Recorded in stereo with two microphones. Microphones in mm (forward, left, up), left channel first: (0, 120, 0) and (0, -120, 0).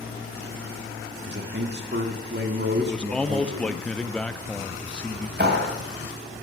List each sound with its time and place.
1.3 s a man speaking: 45° right (ahead or behind), 1.5 m
2.8 s a man speaking: 5° left (ahead or behind), 0.6 m
5.4 s a clap: 45° right (ahead or behind), 3 m